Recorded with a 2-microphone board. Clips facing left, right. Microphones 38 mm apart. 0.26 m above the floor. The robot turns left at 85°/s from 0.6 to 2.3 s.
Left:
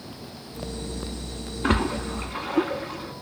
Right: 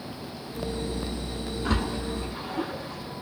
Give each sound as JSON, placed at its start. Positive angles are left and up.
{"t": 1.6, "sound": "a splash", "side_deg": 55, "distance_m": 0.6}